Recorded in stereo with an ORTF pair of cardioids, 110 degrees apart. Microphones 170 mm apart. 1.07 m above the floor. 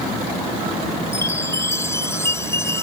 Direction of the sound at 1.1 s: 15° left.